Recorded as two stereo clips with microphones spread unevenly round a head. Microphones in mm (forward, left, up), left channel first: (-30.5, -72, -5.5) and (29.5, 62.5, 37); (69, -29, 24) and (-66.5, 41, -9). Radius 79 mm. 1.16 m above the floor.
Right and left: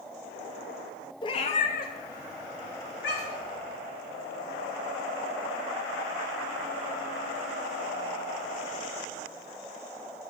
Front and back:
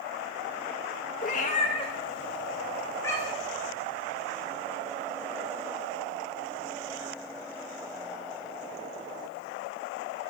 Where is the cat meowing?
45° right, 0.7 m; by 3.5 s 100° right, 1.9 m.